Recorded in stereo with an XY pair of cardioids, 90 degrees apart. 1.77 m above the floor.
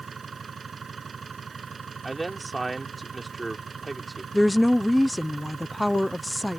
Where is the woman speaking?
Straight ahead.